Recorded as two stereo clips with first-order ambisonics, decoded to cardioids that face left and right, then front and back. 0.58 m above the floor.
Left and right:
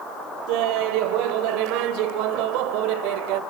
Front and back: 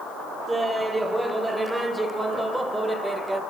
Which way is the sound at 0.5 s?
100° right.